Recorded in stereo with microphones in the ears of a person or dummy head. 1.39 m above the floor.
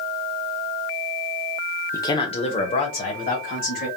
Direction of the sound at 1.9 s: 15° left (ahead or behind).